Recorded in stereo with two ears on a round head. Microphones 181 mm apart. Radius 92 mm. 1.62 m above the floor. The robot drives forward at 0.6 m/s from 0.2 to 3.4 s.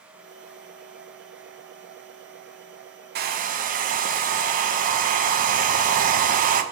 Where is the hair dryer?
50° right (ahead or behind), 0.7 m; by 6.6 s 45° right (ahead or behind), 0.8 m.